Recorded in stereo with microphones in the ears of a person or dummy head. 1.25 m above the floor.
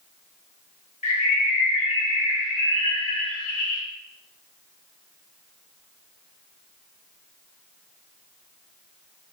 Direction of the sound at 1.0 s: 40° left (ahead or behind).